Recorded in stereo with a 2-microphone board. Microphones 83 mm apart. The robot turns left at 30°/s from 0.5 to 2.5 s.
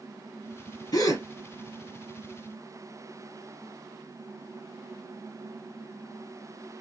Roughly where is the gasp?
Left.